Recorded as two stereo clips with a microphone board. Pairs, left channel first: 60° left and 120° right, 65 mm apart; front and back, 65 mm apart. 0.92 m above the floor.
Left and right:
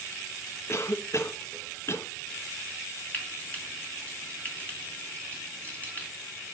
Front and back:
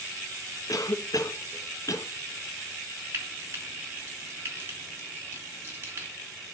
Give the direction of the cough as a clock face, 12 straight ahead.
11 o'clock.